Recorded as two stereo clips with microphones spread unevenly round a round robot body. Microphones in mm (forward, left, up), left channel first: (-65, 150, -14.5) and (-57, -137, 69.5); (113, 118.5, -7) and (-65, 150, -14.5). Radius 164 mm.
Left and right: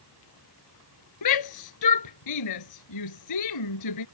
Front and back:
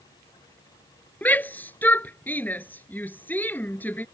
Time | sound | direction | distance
1.2 | a shout | 70° left | ?